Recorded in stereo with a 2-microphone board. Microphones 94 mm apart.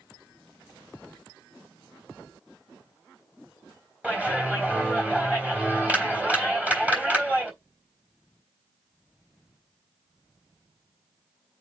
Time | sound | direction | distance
4.0 | a clap | 15° right (ahead or behind) | 3.5 m